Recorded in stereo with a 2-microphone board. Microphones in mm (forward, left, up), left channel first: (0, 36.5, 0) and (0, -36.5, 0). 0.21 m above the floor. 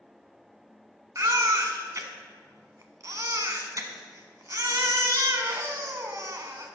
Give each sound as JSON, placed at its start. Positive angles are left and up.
{"t": 1.1, "sound": "a baby crying", "side_deg": -50, "distance_m": 0.9}